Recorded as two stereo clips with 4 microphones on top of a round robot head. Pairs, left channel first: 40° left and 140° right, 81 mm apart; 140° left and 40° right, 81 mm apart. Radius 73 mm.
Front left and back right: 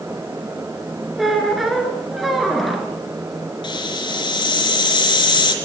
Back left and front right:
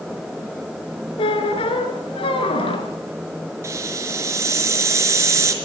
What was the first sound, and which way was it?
A squeak, 130° left.